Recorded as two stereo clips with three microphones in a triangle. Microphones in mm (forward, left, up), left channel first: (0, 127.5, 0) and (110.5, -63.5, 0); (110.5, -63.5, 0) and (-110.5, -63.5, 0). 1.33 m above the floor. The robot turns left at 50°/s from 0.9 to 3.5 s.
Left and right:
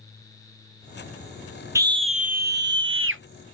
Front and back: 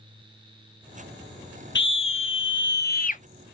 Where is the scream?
15° left, 0.6 m; by 3.2 s 55° right, 0.6 m.